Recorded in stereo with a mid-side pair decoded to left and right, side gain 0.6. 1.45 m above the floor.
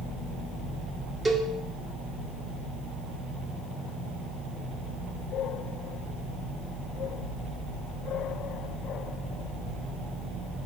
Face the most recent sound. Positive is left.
turn(degrees=-15)